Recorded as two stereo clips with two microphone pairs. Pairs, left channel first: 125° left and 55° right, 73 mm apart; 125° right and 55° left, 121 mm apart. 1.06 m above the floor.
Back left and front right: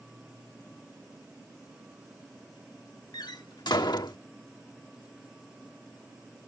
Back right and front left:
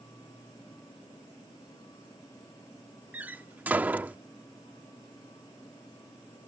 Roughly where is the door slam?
Behind left.